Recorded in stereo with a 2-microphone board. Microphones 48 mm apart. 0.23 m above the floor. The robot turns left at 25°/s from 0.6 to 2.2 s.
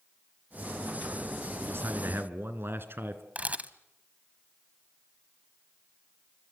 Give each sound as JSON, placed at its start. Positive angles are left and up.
{"t": 1.6, "sound": "a man speaking", "side_deg": -65, "distance_m": 2.5}
{"t": 3.4, "sound": "a camera shutter", "side_deg": -35, "distance_m": 1.1}